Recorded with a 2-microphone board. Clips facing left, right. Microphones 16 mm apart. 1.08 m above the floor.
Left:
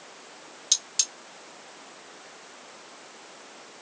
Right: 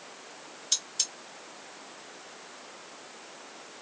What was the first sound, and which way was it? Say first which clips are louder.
Cutlery clinking: left 4 dB; 75° left (ahead or behind).